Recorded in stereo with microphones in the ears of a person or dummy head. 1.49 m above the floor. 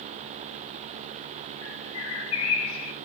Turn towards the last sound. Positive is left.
turn(degrees=85)